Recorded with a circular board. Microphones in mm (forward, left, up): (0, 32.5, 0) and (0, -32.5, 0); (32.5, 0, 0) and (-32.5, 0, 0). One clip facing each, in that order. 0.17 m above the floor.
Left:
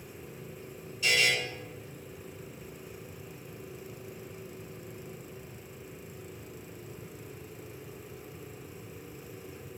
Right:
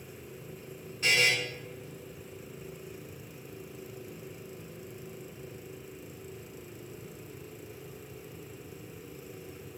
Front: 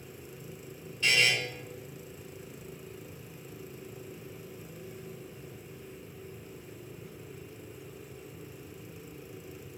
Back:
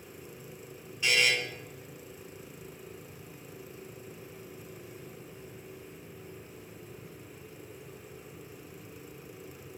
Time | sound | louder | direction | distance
1.0 | a buzzer | right 1 dB, even | 105° right | 1.2 m